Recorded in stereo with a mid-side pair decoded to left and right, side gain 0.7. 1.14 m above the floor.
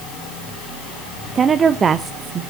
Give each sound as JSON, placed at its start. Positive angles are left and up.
{"t": 1.4, "sound": "a woman speaking", "azimuth_deg": -30, "distance_m": 0.7}